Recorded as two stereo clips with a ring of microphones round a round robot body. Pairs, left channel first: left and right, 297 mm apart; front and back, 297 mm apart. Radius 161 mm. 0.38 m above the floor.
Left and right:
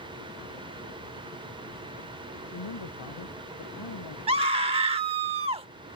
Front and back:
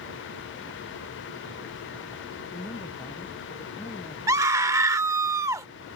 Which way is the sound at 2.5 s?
80° left.